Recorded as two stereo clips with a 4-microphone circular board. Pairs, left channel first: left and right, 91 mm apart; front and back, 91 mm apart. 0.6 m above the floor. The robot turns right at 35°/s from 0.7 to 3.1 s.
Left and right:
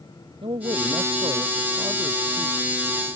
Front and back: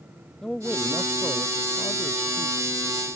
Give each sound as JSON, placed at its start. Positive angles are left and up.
{"t": 0.4, "sound": "a man speaking", "azimuth_deg": -80}